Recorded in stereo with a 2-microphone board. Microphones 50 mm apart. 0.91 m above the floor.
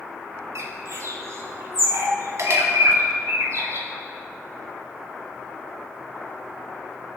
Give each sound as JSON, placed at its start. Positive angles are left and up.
{"t": 0.6, "sound": "a bird", "side_deg": -65, "distance_m": 2.0}